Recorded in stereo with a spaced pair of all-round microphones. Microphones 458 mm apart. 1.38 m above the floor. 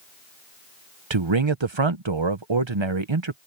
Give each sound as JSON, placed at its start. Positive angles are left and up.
{"t": 1.1, "sound": "a man speaking", "side_deg": -80}